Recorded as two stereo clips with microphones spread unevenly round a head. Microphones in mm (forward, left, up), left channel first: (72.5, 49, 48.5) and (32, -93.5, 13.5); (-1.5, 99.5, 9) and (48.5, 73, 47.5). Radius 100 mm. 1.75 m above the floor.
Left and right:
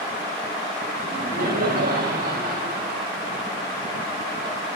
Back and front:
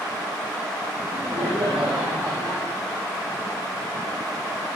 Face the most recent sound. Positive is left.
turn(degrees=-90)